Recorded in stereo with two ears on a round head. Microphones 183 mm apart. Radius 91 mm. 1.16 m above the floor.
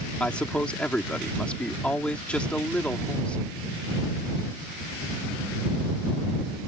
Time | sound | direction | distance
0.2 | a man speaking | 5° left (ahead or behind) | ?